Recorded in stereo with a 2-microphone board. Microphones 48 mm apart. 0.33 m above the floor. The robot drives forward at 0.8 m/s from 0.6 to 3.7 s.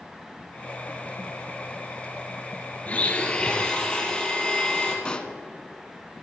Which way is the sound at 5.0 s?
25° left (ahead or behind).